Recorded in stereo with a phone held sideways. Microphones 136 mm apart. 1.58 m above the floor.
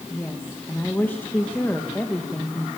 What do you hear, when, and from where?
0.1 s a woman speaking: 15° left (ahead or behind), 2.0 m